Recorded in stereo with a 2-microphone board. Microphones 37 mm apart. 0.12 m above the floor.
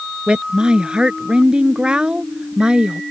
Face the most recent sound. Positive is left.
turn(degrees=-25)  # may be behind; listen again after turning